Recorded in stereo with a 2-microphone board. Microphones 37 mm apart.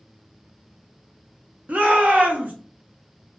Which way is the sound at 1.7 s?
45° right (ahead or behind).